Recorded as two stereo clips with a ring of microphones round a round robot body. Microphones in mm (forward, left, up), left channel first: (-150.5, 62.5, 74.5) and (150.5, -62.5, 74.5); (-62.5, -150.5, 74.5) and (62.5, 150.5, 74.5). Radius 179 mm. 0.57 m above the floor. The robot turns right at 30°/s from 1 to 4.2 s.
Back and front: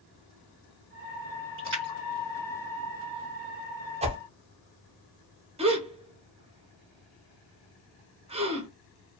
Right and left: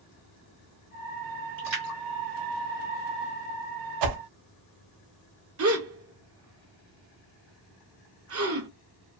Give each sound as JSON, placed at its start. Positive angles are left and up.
{"t": 1.6, "sound": "a splash", "azimuth_deg": 20, "distance_m": 1.5}
{"t": 4.0, "sound": "a whoosh", "azimuth_deg": 50, "distance_m": 0.5}
{"t": 5.6, "sound": "a gasp", "azimuth_deg": 45, "distance_m": 0.7}